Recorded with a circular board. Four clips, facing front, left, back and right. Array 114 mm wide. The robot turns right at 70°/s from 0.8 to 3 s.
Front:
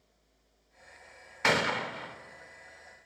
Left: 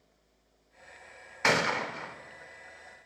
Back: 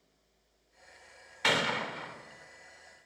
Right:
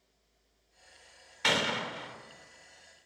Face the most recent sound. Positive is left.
turn(degrees=170)